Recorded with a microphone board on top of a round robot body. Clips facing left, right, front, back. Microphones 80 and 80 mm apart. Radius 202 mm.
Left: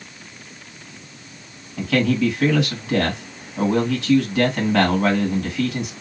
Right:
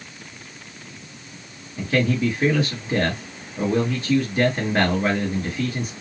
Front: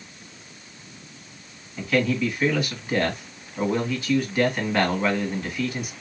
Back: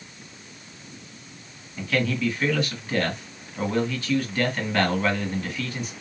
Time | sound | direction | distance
1.8 | a man speaking | 85° left | 1.6 m